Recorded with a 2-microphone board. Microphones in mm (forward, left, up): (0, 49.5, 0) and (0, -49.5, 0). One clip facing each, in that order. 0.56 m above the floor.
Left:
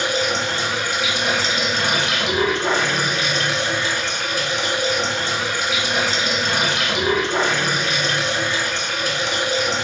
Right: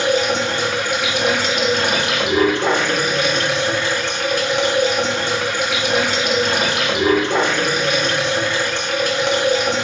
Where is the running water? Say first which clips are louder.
Right 4 dB; 60° right (ahead or behind), 0.8 m.